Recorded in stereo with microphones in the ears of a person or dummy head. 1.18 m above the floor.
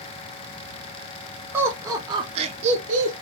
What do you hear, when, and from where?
1.5 s laughter: 10° right (ahead or behind), 1.2 m; by 3.1 s 45° right (ahead or behind), 0.8 m